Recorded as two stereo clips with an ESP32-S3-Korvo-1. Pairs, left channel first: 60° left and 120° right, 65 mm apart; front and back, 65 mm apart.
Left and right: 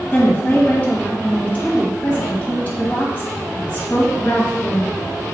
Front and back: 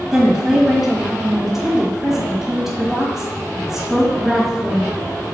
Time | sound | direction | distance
0.1 | a woman speaking | 95° left | 1.4 m